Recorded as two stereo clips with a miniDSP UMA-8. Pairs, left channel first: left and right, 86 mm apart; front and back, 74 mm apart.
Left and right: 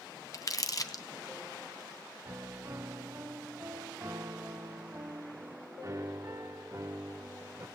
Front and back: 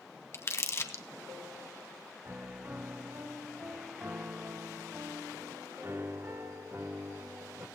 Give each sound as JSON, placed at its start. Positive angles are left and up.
{"t": 0.3, "sound": "crumpling", "azimuth_deg": 50, "distance_m": 0.8}
{"t": 2.2, "sound": "a piano", "azimuth_deg": -130, "distance_m": 0.8}